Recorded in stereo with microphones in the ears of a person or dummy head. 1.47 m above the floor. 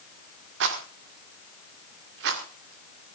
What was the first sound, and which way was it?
A rattle, 65° right (ahead or behind).